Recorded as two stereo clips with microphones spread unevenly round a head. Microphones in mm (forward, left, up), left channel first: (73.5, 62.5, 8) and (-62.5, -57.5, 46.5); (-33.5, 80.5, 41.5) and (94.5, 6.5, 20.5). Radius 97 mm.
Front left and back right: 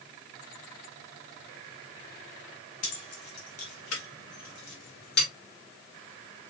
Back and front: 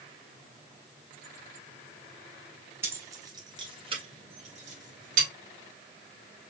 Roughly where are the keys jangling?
Ahead left.